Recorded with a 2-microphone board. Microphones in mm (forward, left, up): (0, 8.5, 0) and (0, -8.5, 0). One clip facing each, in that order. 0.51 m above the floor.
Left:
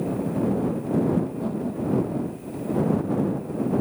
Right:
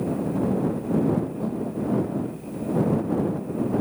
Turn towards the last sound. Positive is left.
turn(degrees=10)  # may be behind; listen again after turning